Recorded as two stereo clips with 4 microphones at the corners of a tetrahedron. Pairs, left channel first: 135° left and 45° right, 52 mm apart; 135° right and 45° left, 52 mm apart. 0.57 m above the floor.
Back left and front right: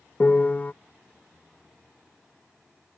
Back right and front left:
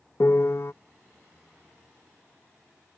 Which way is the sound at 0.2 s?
165° right.